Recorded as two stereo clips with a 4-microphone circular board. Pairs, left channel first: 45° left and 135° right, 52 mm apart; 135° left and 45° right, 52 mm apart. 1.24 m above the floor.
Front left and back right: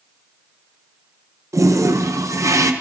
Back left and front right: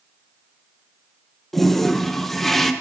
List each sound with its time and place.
1.5 s a toilet flushing: 140° right, 0.7 m